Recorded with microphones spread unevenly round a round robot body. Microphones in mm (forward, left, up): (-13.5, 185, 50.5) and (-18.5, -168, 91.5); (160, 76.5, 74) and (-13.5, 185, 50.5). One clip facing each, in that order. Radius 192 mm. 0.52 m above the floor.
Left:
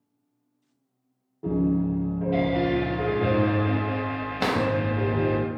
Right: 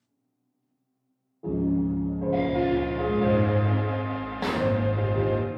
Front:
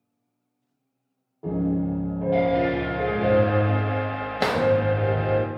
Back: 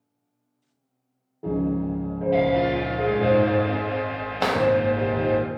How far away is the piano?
About 1.8 m.